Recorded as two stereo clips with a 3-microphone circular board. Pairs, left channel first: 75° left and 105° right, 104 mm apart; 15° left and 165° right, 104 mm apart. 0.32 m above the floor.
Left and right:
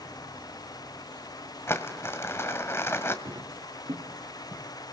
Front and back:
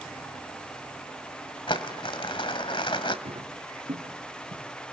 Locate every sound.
1.7 s crumpling: 15° left, 1.4 m
3.2 s footsteps: 150° right, 4 m; by 4.6 s 145° right, 4.5 m